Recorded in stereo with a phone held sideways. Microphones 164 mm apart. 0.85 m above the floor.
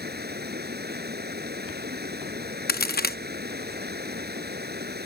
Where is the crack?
70° left (ahead or behind).